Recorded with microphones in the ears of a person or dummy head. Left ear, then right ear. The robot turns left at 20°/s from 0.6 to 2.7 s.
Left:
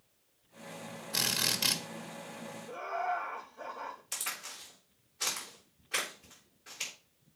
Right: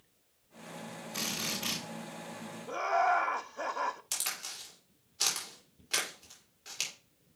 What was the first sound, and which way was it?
A drill, 55° left (ahead or behind).